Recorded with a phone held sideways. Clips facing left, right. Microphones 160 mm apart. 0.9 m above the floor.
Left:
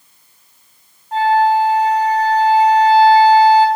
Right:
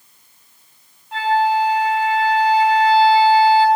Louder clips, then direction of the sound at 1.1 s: Left 4 dB; 45° left (ahead or behind).